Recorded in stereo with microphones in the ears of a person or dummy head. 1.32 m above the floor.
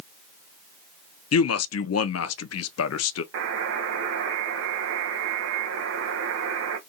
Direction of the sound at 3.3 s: 70° right (ahead or behind).